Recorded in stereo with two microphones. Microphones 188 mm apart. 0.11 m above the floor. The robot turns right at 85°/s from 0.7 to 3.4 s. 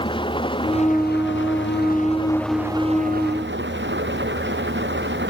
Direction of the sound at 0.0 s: 25° left.